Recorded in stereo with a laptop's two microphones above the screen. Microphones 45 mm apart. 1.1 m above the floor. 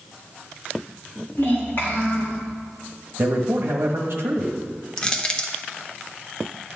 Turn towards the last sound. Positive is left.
turn(degrees=20)  # may be behind; listen again after turning